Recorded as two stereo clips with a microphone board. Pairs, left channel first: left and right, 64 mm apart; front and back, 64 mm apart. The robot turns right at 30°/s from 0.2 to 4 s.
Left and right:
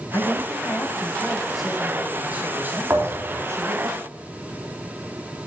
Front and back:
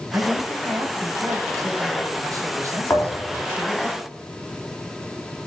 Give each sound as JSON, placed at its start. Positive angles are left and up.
{"t": 0.1, "sound": "a man speaking", "azimuth_deg": 135, "distance_m": 2.5}
{"t": 2.9, "sound": "a thud", "azimuth_deg": -50, "distance_m": 3.5}